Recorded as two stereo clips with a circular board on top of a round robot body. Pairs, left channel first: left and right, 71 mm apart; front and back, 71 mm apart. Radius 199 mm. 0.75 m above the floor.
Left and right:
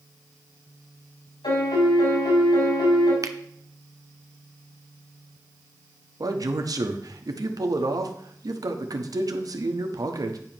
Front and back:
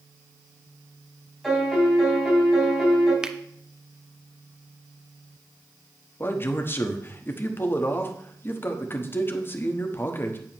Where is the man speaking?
60° right, 1.3 m.